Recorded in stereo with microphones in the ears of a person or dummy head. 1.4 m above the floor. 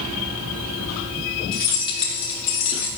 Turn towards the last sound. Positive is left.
turn(degrees=40)  # may be behind; listen again after turning